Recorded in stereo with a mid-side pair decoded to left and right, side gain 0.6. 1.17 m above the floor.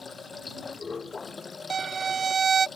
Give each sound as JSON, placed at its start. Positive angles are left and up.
{"t": 0.0, "sound": "running water", "azimuth_deg": 25}
{"t": 1.7, "sound": "a violin", "azimuth_deg": -35}